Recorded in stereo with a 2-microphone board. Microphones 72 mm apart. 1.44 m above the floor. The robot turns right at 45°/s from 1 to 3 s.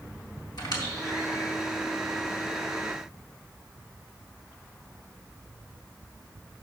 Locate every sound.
0.6 s a squeak: 70° left (ahead or behind), 3.5 m; by 1.5 s 55° left (ahead or behind), 3.5 m